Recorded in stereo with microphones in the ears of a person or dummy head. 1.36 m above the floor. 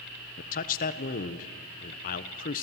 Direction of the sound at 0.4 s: 45° left (ahead or behind).